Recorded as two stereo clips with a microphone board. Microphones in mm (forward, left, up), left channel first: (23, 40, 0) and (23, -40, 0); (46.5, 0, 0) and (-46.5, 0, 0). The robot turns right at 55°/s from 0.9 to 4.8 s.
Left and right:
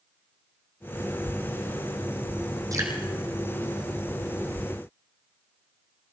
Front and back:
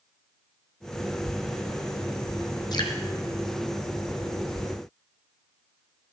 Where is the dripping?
45° right, 2.5 m; by 3.0 s 30° right, 2.5 m.